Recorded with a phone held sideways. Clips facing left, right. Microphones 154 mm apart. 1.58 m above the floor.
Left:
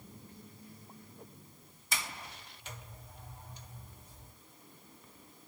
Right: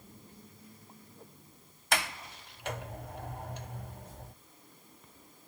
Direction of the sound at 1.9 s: 75° right (ahead or behind).